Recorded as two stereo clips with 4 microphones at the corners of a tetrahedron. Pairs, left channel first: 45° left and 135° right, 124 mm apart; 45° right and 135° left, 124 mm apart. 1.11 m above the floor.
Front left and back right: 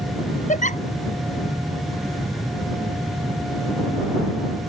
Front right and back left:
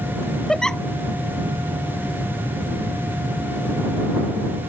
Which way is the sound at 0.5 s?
40° left.